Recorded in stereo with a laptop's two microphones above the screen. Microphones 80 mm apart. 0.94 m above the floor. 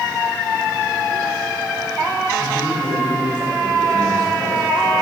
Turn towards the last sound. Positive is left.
turn(degrees=-15)  # may be behind; listen again after turning